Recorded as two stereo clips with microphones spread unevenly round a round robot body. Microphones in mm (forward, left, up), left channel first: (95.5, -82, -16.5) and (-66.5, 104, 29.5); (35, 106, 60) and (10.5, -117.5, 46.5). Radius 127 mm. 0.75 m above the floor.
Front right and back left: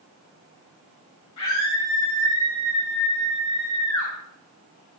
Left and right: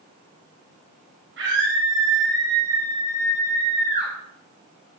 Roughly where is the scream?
Ahead right.